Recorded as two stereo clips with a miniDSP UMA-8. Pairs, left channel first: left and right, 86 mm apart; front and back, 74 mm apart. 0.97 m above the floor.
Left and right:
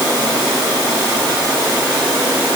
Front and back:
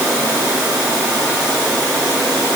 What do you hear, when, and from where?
Only background noise.